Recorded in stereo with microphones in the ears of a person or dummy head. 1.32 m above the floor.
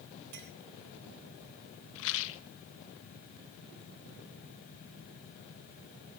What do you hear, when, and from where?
0.3 s a clink: 60° right (ahead or behind), 3.5 m
1.9 s a rattle: 75° left (ahead or behind), 1.3 m